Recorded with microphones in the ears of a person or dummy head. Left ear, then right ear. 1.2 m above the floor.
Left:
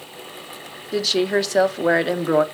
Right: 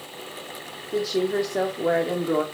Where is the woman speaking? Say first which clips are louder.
Left 4 dB; 40° left (ahead or behind), 0.7 m.